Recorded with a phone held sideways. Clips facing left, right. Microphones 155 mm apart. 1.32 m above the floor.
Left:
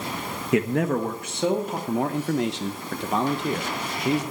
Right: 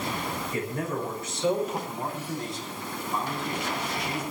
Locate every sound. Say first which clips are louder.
0.5 s a man speaking: left 11 dB; 75° left (ahead or behind), 1.1 m; by 1.8 s 65° left (ahead or behind), 2.5 m
1.9 s a man speaking: left 9 dB; 75° left (ahead or behind), 0.9 m